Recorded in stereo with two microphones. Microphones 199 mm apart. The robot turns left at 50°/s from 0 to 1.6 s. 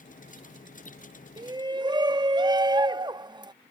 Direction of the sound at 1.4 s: 20° right (ahead or behind).